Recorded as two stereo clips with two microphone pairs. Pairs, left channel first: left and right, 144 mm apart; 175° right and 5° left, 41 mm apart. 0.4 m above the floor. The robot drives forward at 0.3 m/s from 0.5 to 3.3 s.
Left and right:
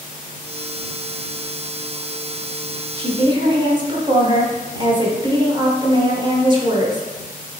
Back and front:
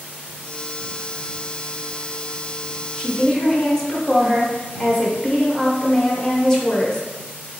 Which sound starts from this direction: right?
A woman speaking, at 3.0 s.